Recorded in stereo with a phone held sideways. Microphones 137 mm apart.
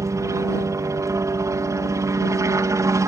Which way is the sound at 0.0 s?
25° right (ahead or behind).